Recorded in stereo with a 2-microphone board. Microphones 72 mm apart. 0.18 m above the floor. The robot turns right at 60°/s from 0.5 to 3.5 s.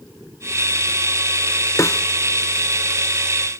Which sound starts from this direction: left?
A snare drum, at 1.8 s.